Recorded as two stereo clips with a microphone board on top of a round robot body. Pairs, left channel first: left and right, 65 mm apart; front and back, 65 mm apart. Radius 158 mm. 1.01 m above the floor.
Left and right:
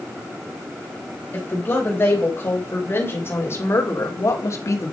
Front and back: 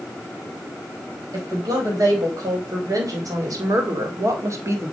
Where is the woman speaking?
150° left, 5.5 m; by 4.9 s 130° left, 1.8 m.